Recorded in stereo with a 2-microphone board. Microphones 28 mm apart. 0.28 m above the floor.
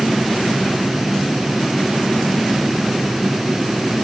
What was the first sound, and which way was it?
Only background noise.